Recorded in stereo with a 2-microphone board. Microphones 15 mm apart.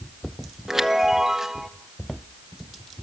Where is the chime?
20° right (ahead or behind), 1.5 m.